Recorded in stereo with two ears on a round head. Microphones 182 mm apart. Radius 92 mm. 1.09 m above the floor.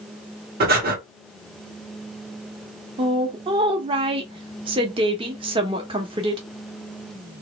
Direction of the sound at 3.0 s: 25° right (ahead or behind).